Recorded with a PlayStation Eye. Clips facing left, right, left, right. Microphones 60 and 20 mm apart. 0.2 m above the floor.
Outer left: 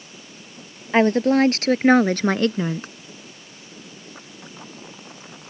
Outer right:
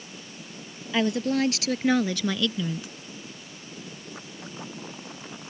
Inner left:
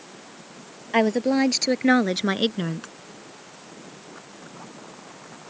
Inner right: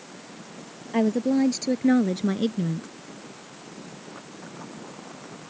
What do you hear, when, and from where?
0.9 s a woman speaking: 45° left (ahead or behind); by 2.9 s 50° left (ahead or behind)